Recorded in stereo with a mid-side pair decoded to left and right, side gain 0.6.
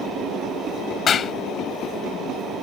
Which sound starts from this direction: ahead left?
A clap, at 1.1 s.